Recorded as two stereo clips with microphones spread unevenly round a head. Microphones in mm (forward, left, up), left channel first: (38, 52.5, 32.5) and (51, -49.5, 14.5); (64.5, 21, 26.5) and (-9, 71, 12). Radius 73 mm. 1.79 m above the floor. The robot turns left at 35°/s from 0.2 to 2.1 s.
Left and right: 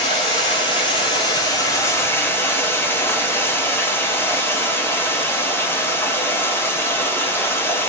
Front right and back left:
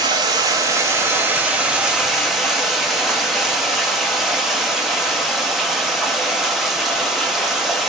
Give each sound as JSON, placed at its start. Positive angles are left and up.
{"t": 0.0, "sound": "running water", "azimuth_deg": 115, "distance_m": 0.9}